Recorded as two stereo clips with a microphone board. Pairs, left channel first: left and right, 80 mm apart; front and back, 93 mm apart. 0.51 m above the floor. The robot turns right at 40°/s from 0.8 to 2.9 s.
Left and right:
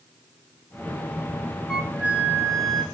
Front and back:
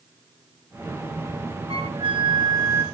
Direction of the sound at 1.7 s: 175° right.